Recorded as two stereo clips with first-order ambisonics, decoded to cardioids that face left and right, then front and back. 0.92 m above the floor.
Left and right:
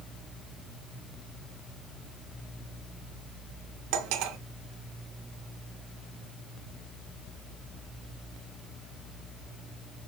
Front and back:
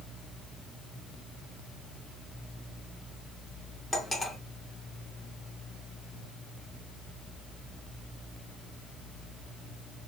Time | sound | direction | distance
3.9 | cutlery clinking | 80° right | 0.6 m